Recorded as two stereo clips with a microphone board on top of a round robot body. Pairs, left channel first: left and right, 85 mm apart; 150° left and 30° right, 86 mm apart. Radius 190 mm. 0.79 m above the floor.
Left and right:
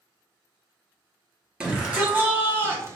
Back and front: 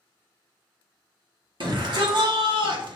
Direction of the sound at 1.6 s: 10° right.